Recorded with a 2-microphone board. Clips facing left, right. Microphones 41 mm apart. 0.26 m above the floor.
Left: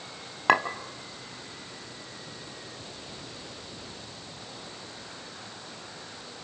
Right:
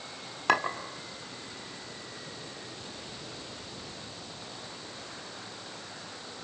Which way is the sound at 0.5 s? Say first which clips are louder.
Left 4 dB; 25° left (ahead or behind).